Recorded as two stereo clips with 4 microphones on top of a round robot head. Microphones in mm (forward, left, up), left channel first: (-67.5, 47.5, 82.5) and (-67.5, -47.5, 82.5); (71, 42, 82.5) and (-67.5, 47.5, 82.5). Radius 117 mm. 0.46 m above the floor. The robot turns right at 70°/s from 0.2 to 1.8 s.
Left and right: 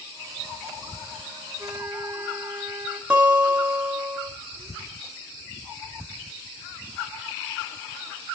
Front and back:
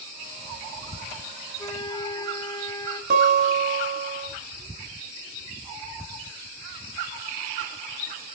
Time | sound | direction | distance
1.6 | a flute | 45° right | 1.5 m
3.1 | a guitar | 170° right | 4.5 m